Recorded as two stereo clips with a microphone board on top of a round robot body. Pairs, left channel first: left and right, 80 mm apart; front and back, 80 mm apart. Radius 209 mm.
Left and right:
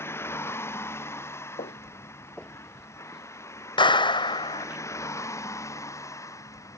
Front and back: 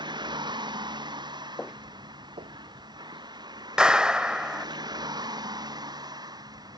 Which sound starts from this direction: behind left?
A vehicle, at 0.0 s.